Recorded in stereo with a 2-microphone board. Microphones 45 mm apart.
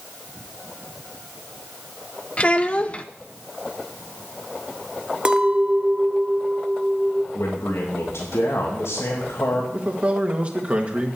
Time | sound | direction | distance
2.4 | a child speaking | 25° left (ahead or behind) | 0.6 m
5.2 | a clink | 25° right (ahead or behind) | 1.0 m
7.3 | a man speaking | 75° left (ahead or behind) | 2.5 m
9.7 | a man speaking | 30° right (ahead or behind) | 1.9 m